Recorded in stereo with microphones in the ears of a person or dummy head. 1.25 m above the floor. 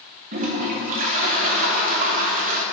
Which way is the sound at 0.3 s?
45° right (ahead or behind).